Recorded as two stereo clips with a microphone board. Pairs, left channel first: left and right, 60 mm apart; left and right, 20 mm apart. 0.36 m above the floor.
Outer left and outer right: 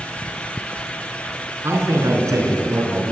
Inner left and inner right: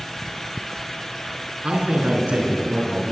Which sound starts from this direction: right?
A man speaking, at 1.6 s.